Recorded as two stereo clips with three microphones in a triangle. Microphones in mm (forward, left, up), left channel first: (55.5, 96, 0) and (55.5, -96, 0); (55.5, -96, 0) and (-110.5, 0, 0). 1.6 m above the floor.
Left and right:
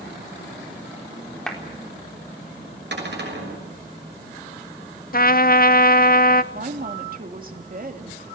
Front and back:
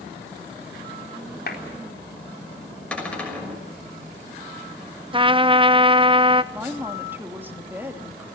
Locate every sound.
1.5 s a clap: 5° left, 4 m
2.9 s a cupboard door: 115° right, 6 m
5.1 s a trumpet: 100° left, 0.6 m
6.5 s a woman speaking: 130° right, 2.5 m